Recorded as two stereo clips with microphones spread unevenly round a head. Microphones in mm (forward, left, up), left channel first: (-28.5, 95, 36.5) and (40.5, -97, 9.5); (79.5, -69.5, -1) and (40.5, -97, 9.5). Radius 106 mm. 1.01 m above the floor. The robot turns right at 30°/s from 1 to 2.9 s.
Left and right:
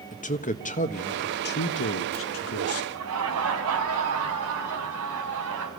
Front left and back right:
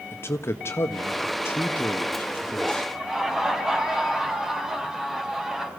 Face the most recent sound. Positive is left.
turn(degrees=-65)